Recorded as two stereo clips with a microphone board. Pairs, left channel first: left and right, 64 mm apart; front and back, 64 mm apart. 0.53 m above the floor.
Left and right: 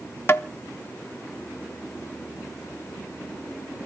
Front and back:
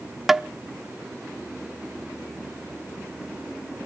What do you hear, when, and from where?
0.3 s tapping: 100° left, 0.6 m